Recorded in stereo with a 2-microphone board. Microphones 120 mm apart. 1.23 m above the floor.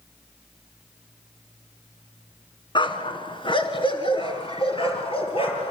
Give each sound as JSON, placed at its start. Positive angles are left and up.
{"t": 2.8, "sound": "a dog barking", "side_deg": 40, "distance_m": 3.5}